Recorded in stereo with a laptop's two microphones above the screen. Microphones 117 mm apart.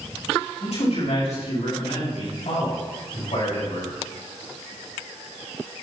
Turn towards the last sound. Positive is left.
turn(degrees=80)